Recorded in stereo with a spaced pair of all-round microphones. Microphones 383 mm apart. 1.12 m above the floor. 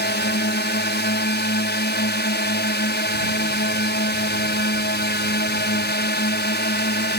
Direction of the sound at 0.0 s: 25° left (ahead or behind).